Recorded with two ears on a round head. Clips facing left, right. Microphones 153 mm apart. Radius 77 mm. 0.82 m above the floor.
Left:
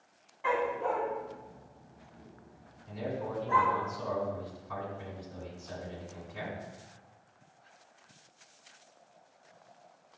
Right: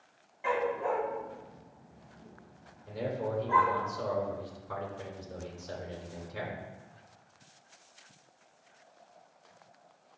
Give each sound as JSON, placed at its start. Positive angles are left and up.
{"t": 0.4, "sound": "a dog barking", "side_deg": -15, "distance_m": 2.0}
{"t": 2.9, "sound": "a man speaking", "side_deg": -55, "distance_m": 2.5}